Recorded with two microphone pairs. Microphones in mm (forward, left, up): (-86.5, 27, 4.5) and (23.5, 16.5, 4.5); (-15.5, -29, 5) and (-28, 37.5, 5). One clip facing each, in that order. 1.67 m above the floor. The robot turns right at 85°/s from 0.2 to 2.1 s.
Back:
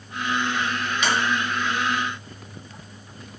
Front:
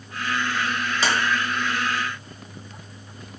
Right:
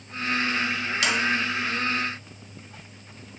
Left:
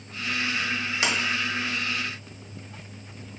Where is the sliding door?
45° left, 0.6 m; by 1.1 s 55° left, 0.6 m.